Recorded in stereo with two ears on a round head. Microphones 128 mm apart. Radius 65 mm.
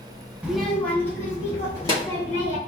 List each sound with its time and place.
0.4 s a child speaking: 10° right (ahead or behind), 0.6 m; by 2.6 s 30° left (ahead or behind), 1.9 m